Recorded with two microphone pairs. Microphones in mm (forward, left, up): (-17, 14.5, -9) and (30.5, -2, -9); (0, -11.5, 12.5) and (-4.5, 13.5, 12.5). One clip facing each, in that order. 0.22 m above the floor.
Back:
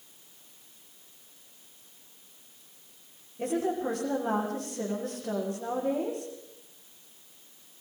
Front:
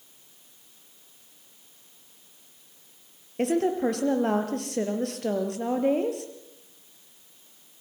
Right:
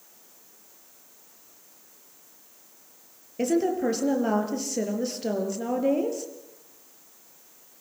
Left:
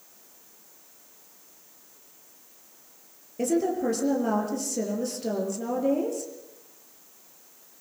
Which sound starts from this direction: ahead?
A woman speaking, at 3.4 s.